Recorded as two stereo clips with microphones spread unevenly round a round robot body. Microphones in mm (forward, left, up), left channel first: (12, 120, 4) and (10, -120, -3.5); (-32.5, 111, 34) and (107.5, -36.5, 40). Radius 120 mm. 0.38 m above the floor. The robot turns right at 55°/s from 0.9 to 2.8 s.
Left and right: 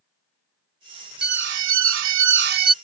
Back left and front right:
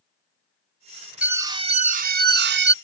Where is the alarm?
130° right; by 2.7 s 45° right.